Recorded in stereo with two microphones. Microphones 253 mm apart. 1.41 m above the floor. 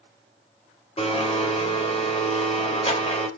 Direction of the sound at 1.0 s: 25° left (ahead or behind).